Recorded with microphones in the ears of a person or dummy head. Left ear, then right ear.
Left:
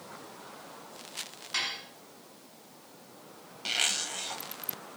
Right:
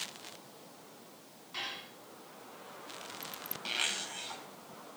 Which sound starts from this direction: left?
Dishes clattering, at 1.5 s.